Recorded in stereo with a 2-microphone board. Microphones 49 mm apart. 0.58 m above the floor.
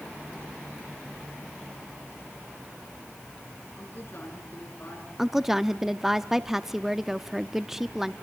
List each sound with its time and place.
3.8 s a woman speaking: 40° left (ahead or behind), 8 m
5.2 s a woman speaking: 10° right (ahead or behind), 0.6 m